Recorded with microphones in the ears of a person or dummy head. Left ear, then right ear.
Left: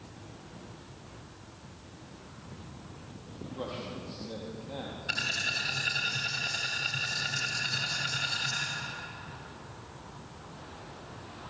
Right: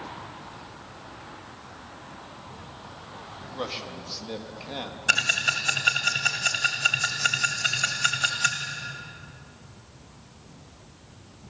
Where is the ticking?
45° right (ahead or behind), 3 m.